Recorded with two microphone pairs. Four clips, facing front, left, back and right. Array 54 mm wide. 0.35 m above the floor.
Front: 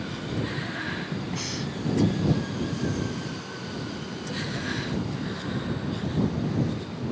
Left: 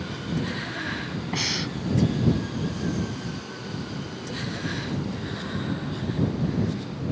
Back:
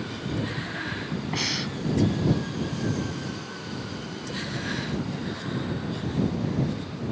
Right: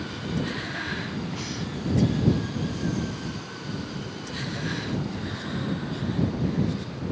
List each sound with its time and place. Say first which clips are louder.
1.3 s breathing: left 4 dB, back 3 dB; 130° left